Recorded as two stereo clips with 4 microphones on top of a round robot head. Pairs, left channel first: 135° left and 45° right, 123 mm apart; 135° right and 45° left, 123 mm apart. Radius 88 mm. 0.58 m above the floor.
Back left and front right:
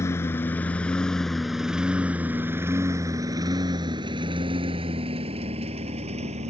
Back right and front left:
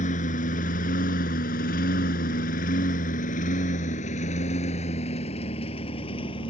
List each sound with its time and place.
0.0 s a lawn mower: 155° right; by 6.5 s 80° right